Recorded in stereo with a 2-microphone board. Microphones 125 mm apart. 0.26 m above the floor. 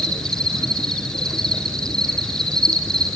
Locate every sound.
0.0 s an insect: 5° left (ahead or behind), 1.7 m